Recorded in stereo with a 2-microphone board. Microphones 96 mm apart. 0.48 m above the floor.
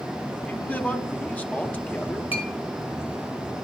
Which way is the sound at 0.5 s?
15° left (ahead or behind).